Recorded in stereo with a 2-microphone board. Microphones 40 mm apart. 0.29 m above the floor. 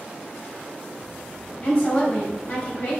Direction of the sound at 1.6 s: 25° left (ahead or behind).